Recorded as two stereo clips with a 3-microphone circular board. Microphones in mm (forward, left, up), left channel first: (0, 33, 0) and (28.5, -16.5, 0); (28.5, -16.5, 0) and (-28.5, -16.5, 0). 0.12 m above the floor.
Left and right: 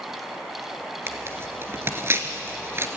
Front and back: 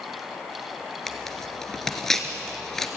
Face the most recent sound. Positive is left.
turn(degrees=-80)